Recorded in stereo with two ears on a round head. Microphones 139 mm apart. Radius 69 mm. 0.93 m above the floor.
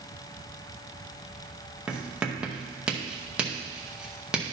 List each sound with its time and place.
1.9 s writing: 5° right (ahead or behind), 0.7 m